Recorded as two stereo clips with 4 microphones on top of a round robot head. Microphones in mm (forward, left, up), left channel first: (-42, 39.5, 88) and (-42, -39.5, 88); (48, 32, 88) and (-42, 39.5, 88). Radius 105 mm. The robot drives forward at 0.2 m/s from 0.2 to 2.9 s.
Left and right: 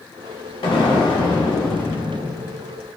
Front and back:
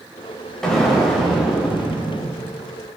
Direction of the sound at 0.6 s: 80° left.